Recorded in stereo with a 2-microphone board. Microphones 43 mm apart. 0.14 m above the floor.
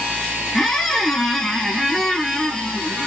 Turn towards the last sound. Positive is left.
turn(degrees=10)  # may be behind; listen again after turning